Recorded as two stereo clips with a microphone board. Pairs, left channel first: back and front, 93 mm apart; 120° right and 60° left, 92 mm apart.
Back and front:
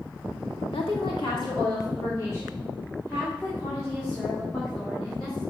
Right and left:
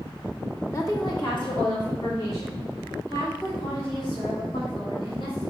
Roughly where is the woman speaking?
Behind.